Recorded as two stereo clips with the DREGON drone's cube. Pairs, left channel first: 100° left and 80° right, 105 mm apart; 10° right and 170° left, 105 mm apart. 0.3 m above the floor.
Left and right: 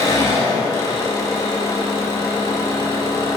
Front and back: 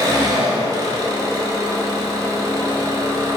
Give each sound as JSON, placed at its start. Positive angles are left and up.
{"t": 0.0, "sound": "an engine running", "azimuth_deg": 135, "distance_m": 0.7}